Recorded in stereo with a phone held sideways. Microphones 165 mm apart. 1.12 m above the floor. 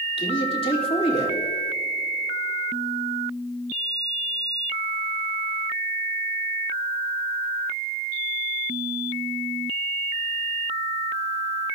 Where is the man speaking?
35° left (ahead or behind), 2.5 m.